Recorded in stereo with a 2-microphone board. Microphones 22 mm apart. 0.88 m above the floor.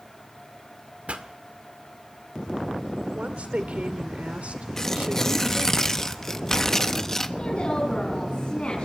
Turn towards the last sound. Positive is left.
turn(degrees=50)  # may be behind; listen again after turning